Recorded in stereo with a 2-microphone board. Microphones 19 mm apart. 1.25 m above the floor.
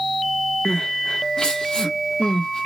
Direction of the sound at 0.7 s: 55° left (ahead or behind).